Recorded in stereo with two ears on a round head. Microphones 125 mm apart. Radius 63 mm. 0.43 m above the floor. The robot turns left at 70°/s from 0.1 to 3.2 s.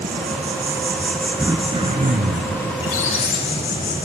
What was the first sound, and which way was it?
An insect, 110° right.